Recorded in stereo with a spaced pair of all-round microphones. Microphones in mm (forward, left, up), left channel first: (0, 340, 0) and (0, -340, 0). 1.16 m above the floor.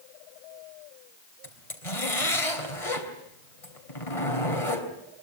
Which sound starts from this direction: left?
A zipper, at 1.4 s.